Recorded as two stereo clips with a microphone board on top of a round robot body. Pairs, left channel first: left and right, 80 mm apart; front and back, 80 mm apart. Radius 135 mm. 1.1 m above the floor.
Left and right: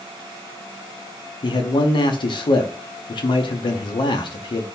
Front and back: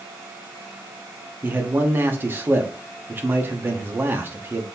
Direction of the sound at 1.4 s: 115° left.